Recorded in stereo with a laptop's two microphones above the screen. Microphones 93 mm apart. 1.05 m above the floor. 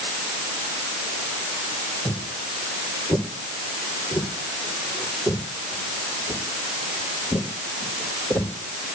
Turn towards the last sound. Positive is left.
turn(degrees=30)  # may be behind; listen again after turning